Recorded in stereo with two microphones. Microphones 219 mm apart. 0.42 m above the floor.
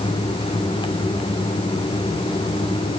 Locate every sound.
Only background noise.